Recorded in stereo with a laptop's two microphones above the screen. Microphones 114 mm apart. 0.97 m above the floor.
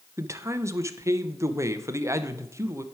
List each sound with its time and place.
0.2 s a man speaking: 25° right (ahead or behind), 0.7 m